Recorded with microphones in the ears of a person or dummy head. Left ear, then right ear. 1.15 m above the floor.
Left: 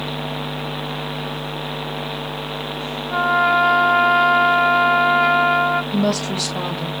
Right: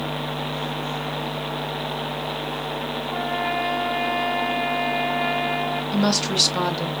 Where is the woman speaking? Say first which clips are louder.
Even; 30° right (ahead or behind), 0.8 m.